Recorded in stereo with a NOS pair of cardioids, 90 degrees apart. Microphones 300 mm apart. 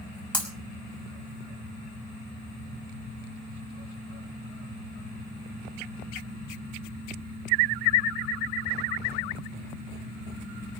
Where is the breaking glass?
5° left, 5.5 m.